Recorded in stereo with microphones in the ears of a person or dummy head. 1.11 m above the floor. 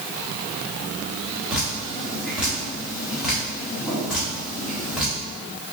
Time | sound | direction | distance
1.5 | dripping | 5° right (ahead or behind) | 1.0 m